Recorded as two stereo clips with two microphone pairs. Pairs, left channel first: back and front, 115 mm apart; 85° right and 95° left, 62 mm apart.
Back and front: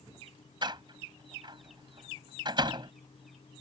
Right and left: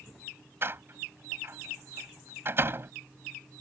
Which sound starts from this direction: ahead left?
A door slam, at 0.6 s.